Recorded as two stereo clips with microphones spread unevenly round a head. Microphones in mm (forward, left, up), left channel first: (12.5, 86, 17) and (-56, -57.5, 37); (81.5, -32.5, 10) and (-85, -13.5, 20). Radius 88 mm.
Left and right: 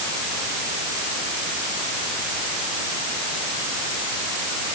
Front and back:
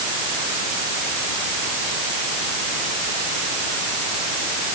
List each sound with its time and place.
Only background noise.